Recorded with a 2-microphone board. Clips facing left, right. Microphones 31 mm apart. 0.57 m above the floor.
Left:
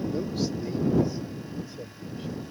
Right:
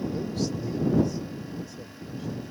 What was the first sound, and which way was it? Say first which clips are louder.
A man speaking: left 1 dB; 15° left (ahead or behind).